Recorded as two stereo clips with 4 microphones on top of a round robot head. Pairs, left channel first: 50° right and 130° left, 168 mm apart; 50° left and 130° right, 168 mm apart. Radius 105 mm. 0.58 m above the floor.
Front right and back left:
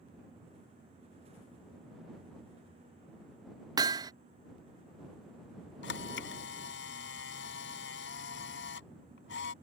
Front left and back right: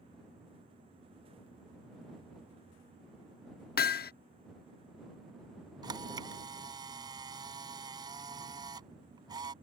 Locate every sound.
3.8 s hammering: 65° left
5.8 s a camera shutter: 60° right